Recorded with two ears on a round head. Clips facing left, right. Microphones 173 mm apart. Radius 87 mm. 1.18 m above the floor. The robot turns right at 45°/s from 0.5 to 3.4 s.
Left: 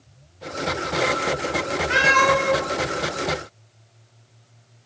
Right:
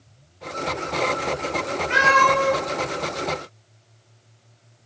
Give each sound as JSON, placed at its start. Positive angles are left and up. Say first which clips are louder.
{"t": 1.9, "sound": "a cat meowing", "louder": "even", "side_deg": 40, "distance_m": 0.9}